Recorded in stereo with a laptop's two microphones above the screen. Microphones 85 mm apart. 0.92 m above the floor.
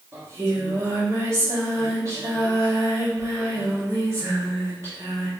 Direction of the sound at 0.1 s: 35° right (ahead or behind).